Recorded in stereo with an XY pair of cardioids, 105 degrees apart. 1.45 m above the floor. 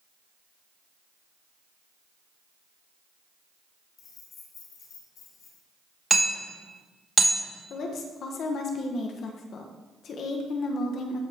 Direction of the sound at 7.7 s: 60° left.